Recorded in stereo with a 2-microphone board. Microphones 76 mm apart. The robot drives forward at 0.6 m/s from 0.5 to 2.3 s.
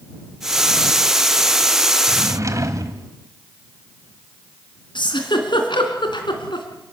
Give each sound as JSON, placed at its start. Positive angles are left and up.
{"t": 2.1, "sound": "a drawer", "side_deg": -40, "distance_m": 1.6}
{"t": 5.0, "sound": "a giggle", "side_deg": 85, "distance_m": 3.0}